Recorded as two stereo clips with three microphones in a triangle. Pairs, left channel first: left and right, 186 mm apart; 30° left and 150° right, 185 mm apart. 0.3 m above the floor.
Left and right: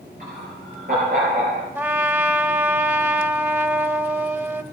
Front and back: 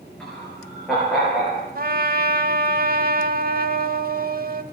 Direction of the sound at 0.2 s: 55° right.